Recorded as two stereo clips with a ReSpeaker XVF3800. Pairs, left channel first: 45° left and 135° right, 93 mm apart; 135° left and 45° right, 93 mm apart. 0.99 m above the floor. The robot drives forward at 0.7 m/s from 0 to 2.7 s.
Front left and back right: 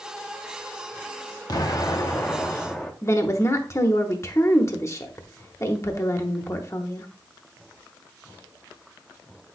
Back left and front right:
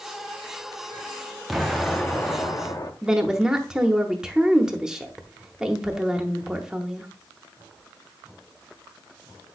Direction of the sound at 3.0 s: 35° left.